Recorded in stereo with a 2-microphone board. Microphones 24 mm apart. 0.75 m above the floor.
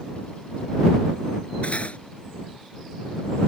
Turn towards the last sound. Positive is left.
turn(degrees=65)  # may be behind; listen again after turning